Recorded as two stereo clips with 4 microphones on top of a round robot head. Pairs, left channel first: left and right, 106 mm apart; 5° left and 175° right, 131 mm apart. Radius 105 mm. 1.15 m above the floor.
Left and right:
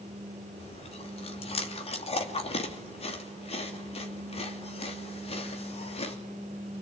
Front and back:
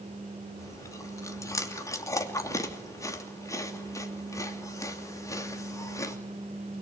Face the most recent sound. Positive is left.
turn(degrees=70)